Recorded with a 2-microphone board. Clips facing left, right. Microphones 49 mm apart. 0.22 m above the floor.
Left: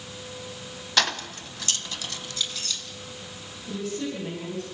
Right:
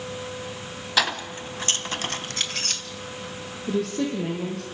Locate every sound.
1.0 s keys jangling: 5° right (ahead or behind), 0.8 m; by 2.8 s 55° right (ahead or behind), 1.4 m
3.7 s a woman speaking: 70° right (ahead or behind), 7 m